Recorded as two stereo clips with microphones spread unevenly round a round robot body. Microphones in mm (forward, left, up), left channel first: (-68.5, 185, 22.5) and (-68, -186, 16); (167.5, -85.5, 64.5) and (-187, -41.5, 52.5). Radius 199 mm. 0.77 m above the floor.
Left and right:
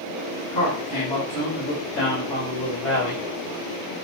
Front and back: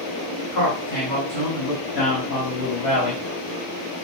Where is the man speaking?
20° left, 3.5 m; by 3.2 s 35° left, 5 m.